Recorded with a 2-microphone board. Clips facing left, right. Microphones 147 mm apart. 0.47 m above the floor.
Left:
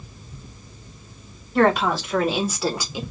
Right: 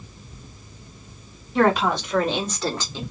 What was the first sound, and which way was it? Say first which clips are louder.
A woman speaking: left 1 dB; centre (ahead or behind).